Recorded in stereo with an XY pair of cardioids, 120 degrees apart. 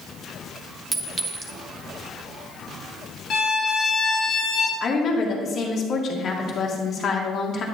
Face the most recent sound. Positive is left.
turn(degrees=50)